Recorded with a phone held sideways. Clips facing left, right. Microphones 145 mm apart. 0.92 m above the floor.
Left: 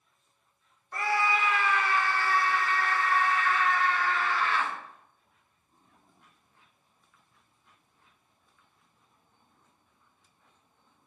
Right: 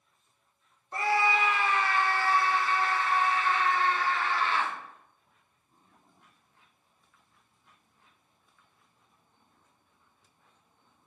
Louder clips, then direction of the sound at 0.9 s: Right 2 dB; 25° right (ahead or behind).